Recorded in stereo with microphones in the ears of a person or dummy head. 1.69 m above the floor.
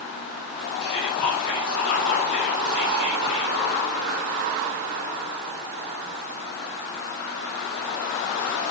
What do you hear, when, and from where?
0.8 s whispering: 45° left (ahead or behind), 2.5 m